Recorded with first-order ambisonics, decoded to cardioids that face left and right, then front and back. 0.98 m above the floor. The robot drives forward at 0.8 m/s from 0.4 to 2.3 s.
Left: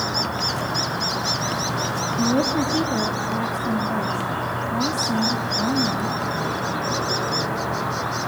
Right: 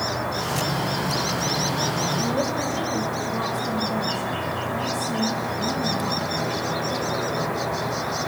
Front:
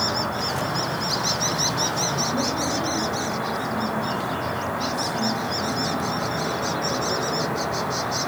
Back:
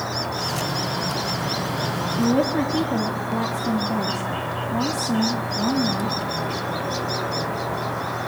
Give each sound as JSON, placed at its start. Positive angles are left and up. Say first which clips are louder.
{"t": 0.0, "sound": "an insect", "louder": "left 2 dB, front 2 dB", "azimuth_deg": 70, "distance_m": 7.5}
{"t": 2.2, "sound": "a woman speaking", "louder": "left 3 dB, back 3 dB", "azimuth_deg": 140, "distance_m": 2.0}